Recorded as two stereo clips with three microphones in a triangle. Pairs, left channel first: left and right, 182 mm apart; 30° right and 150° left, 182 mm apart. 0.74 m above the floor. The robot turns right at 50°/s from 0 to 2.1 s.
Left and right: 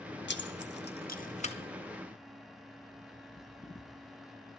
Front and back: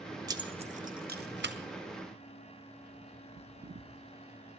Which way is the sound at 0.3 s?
80° left.